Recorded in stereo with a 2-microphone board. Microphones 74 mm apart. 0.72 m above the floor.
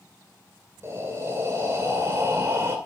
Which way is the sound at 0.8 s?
40° right (ahead or behind).